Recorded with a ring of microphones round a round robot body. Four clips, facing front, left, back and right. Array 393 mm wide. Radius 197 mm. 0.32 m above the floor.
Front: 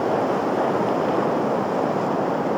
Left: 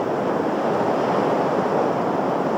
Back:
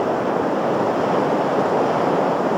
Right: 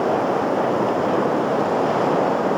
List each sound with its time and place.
Only background noise.